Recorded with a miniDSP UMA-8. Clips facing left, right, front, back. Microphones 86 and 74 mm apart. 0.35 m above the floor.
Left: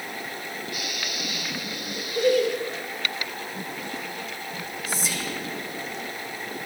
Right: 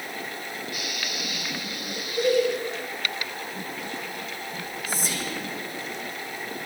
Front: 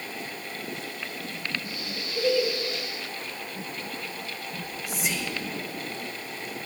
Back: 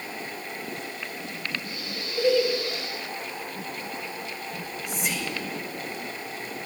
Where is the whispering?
85° right, 1.8 m.